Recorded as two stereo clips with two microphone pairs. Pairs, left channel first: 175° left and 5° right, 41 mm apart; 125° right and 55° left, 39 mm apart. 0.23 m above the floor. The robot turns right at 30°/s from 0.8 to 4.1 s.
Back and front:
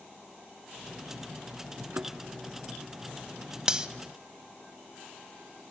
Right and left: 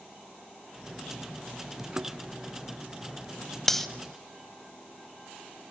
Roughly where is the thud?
Ahead.